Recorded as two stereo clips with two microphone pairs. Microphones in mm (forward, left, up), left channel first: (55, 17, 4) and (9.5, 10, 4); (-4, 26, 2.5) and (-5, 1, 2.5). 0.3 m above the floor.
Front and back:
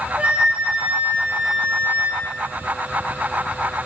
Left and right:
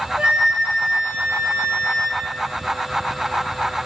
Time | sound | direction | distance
0.2 | a flute | 115° right | 2.5 m